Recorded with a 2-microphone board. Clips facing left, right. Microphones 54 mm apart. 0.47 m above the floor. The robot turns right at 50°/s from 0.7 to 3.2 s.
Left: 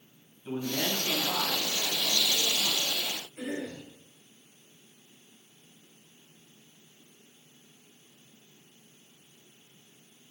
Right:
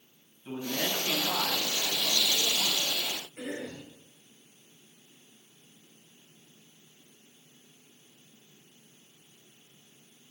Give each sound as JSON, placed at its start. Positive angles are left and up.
{"t": 0.5, "sound": "a man speaking", "azimuth_deg": 175, "distance_m": 2.5}
{"t": 3.4, "sound": "a cough", "side_deg": -40, "distance_m": 2.5}